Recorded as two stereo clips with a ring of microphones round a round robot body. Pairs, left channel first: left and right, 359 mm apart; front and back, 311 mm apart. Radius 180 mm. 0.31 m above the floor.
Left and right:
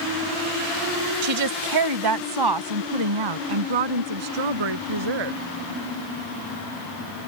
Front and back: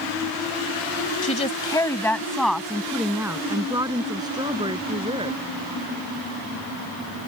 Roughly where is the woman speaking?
Ahead right.